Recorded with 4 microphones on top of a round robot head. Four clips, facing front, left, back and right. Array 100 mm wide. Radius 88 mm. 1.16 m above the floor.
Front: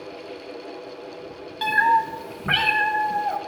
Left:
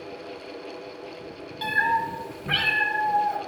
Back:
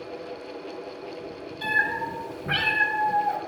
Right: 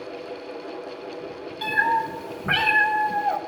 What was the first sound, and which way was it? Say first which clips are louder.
A cat meowing: right 1 dB, front 8 dB; 5° left.